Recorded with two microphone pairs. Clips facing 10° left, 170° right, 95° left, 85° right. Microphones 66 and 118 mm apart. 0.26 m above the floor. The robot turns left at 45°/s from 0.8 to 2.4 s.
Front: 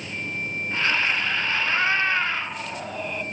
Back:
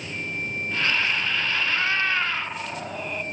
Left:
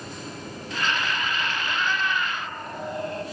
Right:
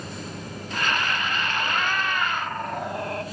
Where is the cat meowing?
50° right, 0.5 m; by 3.2 s 85° right, 0.5 m.